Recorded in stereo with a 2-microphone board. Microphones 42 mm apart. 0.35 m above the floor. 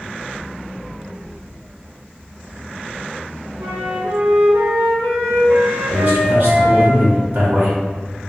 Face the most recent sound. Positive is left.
turn(degrees=-60)  # may be behind; listen again after turning